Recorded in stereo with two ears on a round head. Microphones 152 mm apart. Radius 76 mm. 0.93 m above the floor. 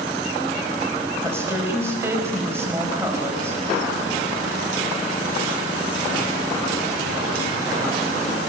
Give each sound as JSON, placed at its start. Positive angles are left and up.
{"t": 1.2, "sound": "a woman speaking", "side_deg": -15, "distance_m": 4.0}